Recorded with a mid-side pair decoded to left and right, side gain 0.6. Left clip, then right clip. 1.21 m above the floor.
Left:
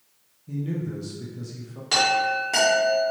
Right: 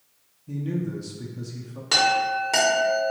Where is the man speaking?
10° right, 0.6 m.